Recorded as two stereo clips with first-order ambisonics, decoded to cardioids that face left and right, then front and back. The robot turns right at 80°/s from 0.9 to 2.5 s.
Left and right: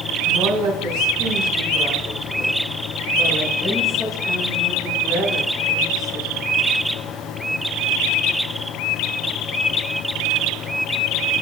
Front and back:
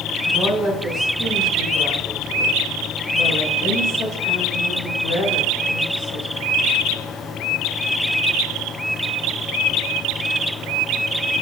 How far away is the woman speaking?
About 5 m.